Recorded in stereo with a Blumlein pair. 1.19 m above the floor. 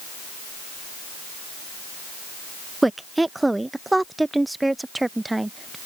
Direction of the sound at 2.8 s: 5° right.